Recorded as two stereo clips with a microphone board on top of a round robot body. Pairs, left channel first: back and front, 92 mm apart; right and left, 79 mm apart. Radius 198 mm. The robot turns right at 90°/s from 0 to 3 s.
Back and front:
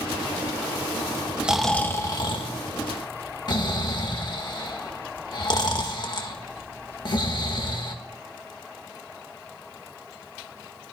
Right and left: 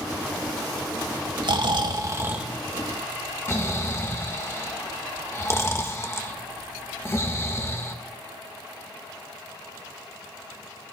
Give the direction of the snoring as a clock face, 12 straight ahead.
9 o'clock.